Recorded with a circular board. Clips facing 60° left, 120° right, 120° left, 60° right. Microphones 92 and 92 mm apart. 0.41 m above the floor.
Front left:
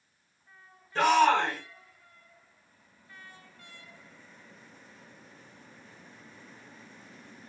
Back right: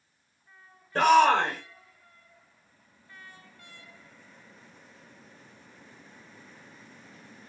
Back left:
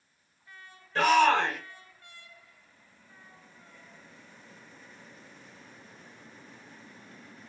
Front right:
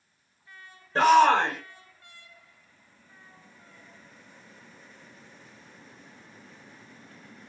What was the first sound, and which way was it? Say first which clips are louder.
A shout: back right 3 dB, front right 4 dB; 110° right.